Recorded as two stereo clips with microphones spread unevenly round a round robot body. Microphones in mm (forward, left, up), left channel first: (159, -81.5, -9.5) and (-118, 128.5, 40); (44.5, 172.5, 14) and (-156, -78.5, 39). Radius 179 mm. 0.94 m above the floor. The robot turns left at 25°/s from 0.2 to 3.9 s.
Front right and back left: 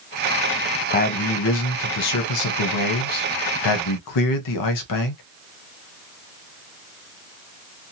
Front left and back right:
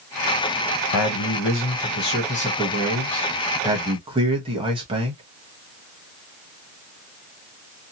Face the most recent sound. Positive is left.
turn(degrees=-50)